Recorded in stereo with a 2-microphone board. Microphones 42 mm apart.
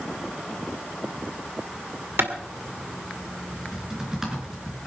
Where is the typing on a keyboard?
15° right (ahead or behind), 4.5 m.